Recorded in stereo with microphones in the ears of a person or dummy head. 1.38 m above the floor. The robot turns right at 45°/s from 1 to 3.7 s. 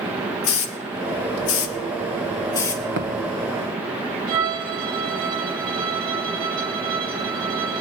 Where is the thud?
55° right (ahead or behind), 1.3 m.